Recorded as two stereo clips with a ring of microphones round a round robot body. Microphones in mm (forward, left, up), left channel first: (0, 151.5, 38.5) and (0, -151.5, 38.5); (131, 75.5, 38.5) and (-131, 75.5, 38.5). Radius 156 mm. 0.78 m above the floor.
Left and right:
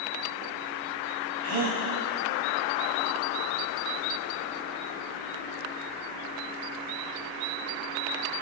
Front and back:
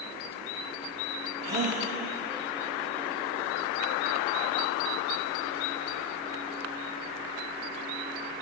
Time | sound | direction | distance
1.4 | a gasp | 130° right | 4.5 m